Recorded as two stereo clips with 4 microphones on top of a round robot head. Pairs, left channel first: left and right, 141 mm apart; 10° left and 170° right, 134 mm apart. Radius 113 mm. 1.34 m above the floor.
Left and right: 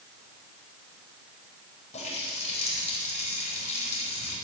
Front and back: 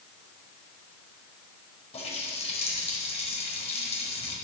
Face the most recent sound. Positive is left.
turn(degrees=50)